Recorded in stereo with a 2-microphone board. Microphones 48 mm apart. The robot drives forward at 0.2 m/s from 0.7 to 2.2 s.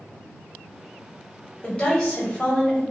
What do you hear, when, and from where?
1.6 s a woman speaking: 15° left (ahead or behind), 1.2 m